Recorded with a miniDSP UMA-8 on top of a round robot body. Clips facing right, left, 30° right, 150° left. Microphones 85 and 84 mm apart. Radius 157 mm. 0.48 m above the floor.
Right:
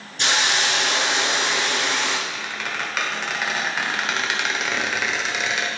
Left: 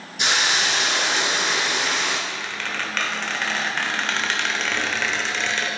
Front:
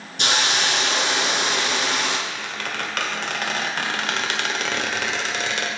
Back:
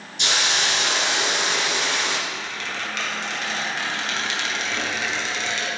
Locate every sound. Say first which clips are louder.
0.2 s a hiss: even, front 2 dB; 10° left, 1.6 m
2.3 s a squeak: even, front 1 dB; 10° right, 1.4 m